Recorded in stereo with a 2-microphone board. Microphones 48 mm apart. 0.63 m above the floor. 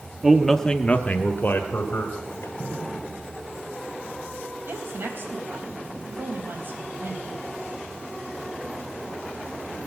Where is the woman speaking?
55° right (ahead or behind), 3.5 m.